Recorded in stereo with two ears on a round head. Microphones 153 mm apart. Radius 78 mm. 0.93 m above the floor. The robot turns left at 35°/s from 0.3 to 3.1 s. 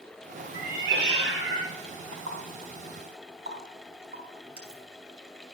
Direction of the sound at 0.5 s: 55° right.